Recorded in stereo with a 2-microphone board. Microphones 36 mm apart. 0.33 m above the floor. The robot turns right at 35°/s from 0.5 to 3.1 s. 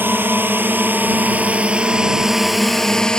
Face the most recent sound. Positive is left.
turn(degrees=25)  # may be behind; listen again after turning